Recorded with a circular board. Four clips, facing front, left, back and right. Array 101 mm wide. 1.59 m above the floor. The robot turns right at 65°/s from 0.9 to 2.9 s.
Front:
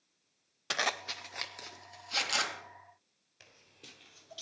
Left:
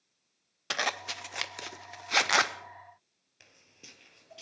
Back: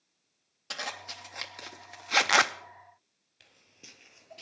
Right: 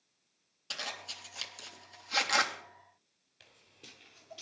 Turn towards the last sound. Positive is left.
turn(degrees=175)